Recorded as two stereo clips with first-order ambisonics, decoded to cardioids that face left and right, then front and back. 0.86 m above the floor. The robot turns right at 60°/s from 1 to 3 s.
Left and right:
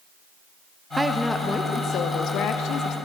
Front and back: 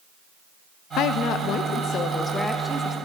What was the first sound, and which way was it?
A woman speaking, 10° right.